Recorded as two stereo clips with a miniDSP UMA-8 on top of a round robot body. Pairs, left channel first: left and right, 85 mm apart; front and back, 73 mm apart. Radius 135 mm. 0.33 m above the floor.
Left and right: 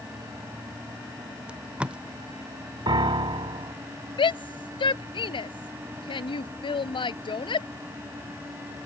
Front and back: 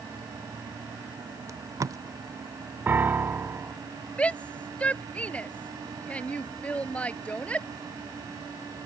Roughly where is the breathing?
No breathing in this recording.